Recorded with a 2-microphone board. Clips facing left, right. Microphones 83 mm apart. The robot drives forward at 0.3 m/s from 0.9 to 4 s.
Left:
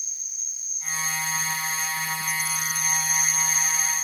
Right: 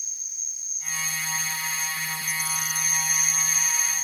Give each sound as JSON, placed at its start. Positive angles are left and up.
{"t": 0.0, "sound": "an insect", "side_deg": 65, "distance_m": 0.8}